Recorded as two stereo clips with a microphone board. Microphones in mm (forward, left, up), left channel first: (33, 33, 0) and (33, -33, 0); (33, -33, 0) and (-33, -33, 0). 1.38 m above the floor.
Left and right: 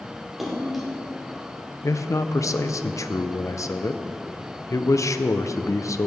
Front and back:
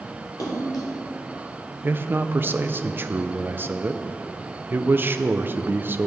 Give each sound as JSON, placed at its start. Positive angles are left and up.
{"t": 0.4, "sound": "a splash", "azimuth_deg": 0, "distance_m": 2.5}
{"t": 1.8, "sound": "a man speaking", "azimuth_deg": 125, "distance_m": 0.6}